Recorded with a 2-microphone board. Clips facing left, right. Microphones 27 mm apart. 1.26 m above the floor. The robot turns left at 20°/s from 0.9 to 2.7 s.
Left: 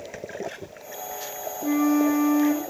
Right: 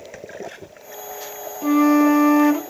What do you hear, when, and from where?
1.6 s a flute: 50° right (ahead or behind), 0.7 m; by 2.6 s 65° right (ahead or behind), 0.7 m